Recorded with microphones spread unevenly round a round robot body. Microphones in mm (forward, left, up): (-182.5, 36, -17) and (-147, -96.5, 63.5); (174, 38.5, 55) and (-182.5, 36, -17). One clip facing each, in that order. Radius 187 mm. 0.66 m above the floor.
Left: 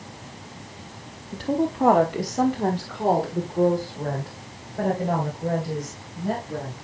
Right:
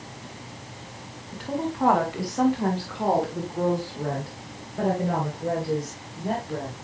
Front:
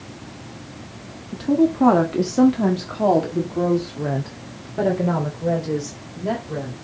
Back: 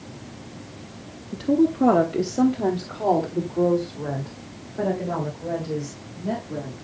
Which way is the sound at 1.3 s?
90° left.